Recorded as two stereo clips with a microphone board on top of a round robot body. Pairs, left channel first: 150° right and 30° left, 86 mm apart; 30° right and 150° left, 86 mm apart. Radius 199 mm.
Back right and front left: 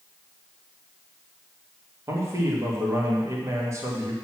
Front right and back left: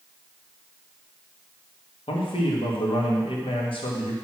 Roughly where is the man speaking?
Ahead right.